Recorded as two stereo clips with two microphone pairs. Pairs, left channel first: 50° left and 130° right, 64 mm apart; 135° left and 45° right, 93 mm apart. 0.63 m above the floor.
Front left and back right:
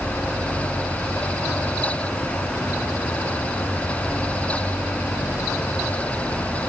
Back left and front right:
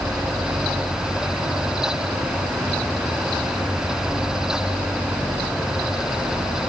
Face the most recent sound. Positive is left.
No sound to turn to.